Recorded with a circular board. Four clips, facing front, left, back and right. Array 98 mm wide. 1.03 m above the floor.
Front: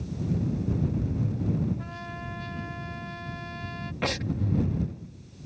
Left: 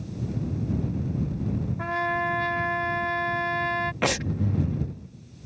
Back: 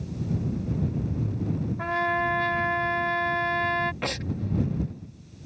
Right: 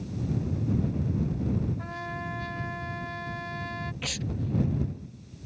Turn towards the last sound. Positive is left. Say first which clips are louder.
# left 8 dB, front 1 dB
turn(degrees=90)